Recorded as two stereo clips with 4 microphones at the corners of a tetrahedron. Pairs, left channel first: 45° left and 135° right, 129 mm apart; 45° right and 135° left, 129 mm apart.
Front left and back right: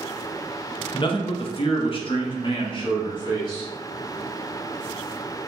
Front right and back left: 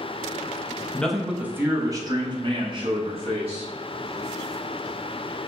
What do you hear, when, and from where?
0.9 s a man speaking: 30° left, 0.6 m; by 3.7 s 95° left, 1.8 m